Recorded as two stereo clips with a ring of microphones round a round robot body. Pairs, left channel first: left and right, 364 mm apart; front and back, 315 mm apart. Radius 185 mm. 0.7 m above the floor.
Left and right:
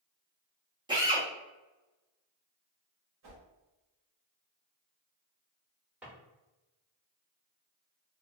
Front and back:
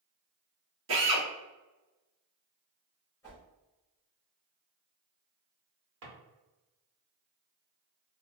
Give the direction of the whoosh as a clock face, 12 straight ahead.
3 o'clock.